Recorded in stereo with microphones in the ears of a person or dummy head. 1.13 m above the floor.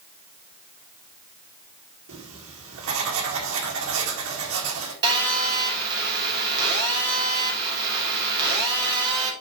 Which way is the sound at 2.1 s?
70° right (ahead or behind).